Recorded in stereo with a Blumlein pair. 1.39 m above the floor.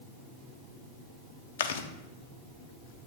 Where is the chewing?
60° left, 0.5 m.